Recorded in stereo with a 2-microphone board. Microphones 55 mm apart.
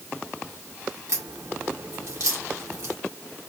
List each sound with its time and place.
1.1 s a crack: 60° right (ahead or behind), 2 m